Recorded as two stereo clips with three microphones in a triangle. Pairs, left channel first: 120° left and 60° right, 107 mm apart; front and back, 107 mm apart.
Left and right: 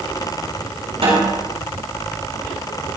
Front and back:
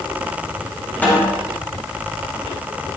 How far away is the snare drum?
About 6 m.